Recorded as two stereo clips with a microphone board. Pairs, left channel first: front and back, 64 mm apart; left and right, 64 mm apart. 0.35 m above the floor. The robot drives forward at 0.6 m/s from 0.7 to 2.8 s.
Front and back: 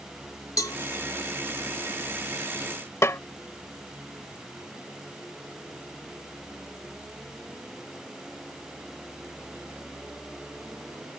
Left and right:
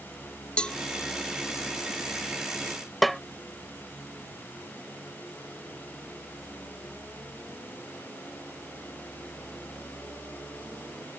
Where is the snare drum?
Straight ahead.